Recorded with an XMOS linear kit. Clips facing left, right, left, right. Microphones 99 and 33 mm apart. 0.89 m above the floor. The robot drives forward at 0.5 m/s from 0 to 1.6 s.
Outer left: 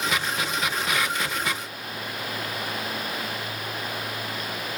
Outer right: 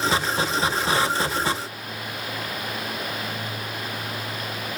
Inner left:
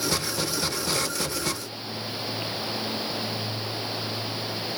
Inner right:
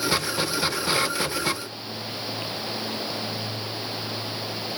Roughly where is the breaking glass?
No breaking glass in this recording.